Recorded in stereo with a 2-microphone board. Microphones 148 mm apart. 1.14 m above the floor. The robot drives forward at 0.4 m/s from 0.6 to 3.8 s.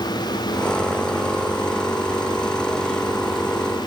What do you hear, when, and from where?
Only background noise.